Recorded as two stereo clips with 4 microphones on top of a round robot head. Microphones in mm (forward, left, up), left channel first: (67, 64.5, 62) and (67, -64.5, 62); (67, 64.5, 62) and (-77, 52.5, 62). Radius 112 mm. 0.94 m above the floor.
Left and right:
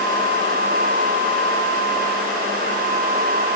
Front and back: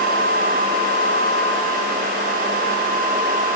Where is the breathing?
No breathing in this recording.